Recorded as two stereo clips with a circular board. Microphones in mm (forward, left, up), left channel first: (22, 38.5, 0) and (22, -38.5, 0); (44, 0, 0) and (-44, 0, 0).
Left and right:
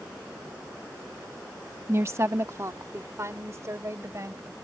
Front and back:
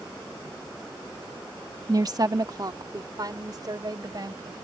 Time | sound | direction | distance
1.9 | a woman speaking | 140° right | ?